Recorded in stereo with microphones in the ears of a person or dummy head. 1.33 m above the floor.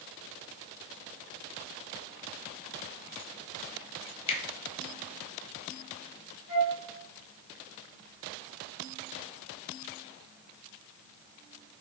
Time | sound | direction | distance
4.3 | a finger snap | 30° left (ahead or behind) | 0.7 m
6.5 | a flute | 60° right (ahead or behind) | 1.2 m